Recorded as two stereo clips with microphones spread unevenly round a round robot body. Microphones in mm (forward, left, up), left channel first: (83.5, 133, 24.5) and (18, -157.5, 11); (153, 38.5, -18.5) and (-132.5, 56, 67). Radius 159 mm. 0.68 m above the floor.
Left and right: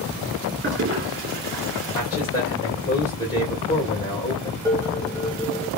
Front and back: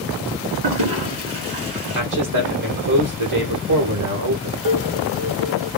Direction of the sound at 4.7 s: 165° left.